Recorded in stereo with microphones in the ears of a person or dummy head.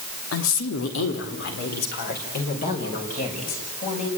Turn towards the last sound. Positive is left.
turn(degrees=40)  # may be behind; listen again after turning